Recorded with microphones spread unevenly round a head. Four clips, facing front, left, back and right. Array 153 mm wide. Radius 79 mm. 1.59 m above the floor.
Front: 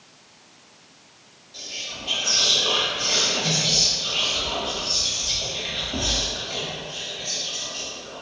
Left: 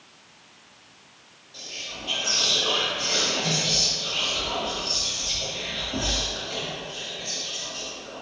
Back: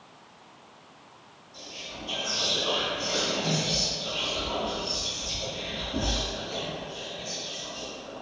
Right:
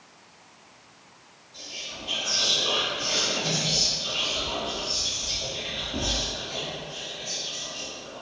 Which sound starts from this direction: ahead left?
Whispering, at 1.5 s.